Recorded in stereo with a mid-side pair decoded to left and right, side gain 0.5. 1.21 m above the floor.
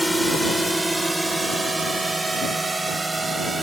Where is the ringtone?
I don't hear a ringtone.